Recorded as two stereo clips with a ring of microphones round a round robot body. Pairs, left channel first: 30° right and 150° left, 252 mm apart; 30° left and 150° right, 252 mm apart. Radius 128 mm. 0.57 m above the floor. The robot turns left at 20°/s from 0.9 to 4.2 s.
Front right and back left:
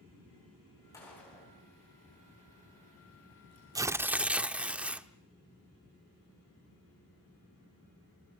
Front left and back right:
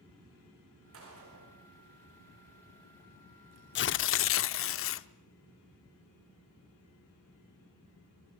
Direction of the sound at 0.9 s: 110° right.